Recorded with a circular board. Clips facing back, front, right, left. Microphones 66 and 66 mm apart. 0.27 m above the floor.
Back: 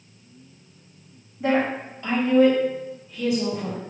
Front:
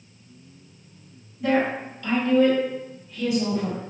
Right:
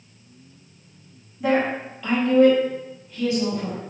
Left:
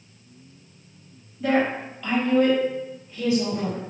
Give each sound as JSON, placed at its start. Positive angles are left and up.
{"t": 1.4, "sound": "a woman speaking", "azimuth_deg": -155, "distance_m": 1.6}